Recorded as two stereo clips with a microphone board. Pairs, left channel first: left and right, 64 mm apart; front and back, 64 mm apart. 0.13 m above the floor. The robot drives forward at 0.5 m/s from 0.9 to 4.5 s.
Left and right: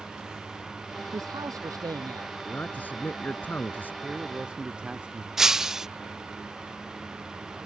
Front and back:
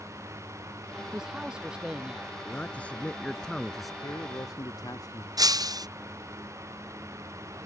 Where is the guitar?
No guitar in this recording.